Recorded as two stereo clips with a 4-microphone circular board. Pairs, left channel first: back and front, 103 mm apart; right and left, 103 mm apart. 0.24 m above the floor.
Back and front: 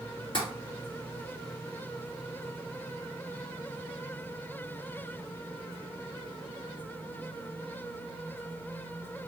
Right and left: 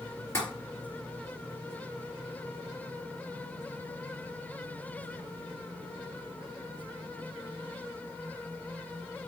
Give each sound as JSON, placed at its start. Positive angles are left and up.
{"t": 0.3, "sound": "tapping", "azimuth_deg": -150, "distance_m": 3.0}